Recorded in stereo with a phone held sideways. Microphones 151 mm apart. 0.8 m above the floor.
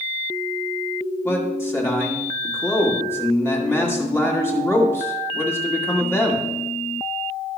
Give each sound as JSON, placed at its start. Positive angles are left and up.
{"t": 1.2, "sound": "a man speaking", "side_deg": 15, "distance_m": 1.8}